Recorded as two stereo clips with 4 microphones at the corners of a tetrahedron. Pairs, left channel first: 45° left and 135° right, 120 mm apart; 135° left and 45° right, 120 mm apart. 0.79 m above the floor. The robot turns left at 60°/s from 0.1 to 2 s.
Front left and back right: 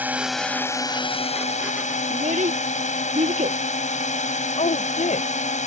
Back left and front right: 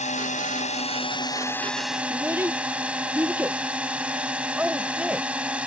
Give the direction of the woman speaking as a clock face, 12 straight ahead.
11 o'clock.